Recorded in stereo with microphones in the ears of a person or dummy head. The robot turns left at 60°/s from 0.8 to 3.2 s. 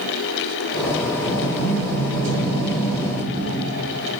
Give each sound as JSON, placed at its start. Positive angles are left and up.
{"t": 1.2, "sound": "a sliding door", "azimuth_deg": -25, "distance_m": 1.9}